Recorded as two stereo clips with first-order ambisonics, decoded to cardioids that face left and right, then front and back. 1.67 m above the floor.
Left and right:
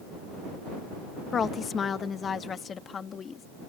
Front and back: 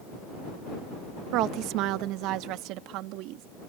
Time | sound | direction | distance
1.3 | a woman speaking | 155° left | ?